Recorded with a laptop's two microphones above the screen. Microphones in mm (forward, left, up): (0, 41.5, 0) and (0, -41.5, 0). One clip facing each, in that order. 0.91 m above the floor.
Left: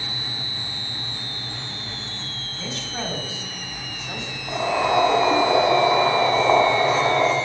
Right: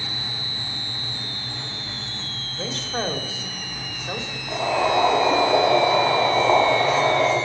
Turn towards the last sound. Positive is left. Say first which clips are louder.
# even
turn(degrees=10)  # may be behind; listen again after turning